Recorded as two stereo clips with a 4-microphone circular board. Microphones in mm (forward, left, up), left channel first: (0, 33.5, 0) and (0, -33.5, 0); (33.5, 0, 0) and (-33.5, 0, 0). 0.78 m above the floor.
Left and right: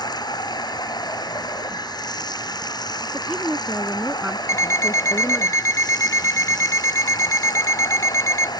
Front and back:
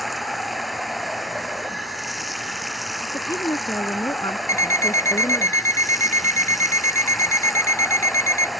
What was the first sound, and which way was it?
Running water, 90° left.